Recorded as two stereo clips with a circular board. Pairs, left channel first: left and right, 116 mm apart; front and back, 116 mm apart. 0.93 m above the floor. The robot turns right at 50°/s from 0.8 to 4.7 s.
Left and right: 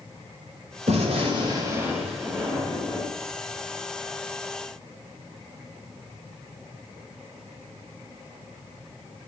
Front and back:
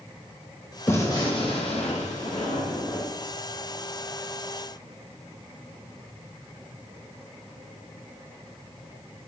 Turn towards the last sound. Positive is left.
turn(degrees=125)